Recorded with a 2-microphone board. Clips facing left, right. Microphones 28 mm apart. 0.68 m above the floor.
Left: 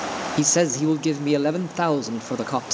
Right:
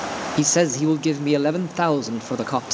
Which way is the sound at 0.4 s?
10° right (ahead or behind).